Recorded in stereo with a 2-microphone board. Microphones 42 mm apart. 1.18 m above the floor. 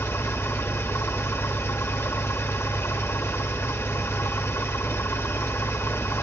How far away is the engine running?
About 1.1 m.